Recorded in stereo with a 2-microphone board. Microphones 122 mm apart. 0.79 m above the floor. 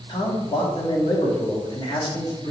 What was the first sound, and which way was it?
A man speaking, 40° left (ahead or behind).